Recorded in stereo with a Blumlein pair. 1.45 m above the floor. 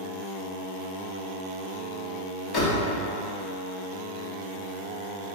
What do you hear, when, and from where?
2.5 s a door slam: 25° left, 1.2 m